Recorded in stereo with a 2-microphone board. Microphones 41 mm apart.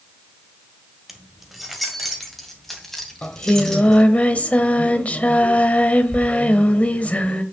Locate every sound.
1.1 s keys jangling: 5° right (ahead or behind), 1.7 m; by 4.0 s 10° left (ahead or behind), 3.5 m
3.2 s singing: 35° left (ahead or behind), 1.1 m